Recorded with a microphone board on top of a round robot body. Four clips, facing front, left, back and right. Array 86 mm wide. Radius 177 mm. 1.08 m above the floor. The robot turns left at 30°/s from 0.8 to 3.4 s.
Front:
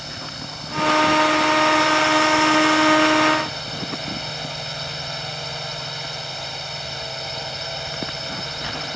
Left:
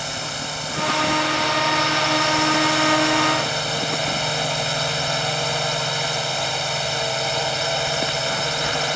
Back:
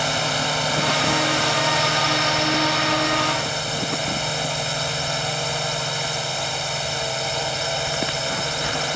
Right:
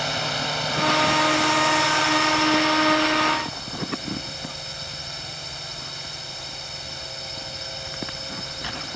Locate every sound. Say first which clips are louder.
0.0 s a drone: right 3 dB, back 12 dB; 170° right; by 9.0 s 115° left